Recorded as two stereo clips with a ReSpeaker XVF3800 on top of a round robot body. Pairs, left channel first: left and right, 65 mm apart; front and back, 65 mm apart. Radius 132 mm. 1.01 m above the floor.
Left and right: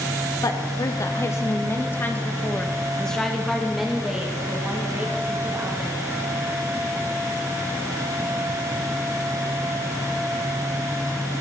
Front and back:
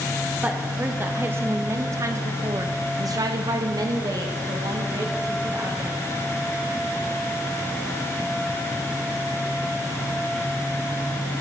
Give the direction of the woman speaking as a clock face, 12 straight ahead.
8 o'clock.